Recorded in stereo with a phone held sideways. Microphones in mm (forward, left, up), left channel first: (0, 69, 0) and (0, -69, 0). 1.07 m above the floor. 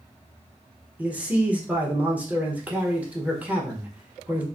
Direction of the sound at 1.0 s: 10° right (ahead or behind).